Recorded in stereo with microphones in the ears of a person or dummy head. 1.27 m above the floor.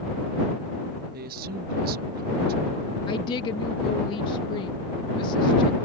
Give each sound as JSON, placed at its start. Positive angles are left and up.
{"t": 1.1, "sound": "a man speaking", "side_deg": -55}
{"t": 3.1, "sound": "a woman speaking", "side_deg": 30}